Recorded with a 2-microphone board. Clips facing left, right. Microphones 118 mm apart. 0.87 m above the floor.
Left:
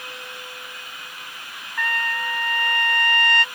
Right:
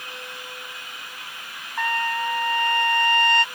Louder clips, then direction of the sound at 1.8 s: Right 2 dB; 20° right (ahead or behind).